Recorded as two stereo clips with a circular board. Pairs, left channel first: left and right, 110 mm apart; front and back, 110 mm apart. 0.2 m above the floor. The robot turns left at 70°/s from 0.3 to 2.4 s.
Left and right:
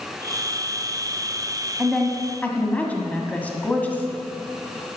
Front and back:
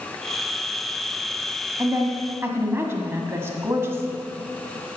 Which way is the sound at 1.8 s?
170° right.